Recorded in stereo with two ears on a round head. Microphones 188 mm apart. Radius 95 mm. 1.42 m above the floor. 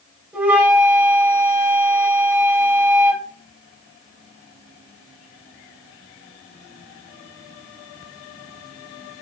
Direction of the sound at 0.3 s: 10° right (ahead or behind).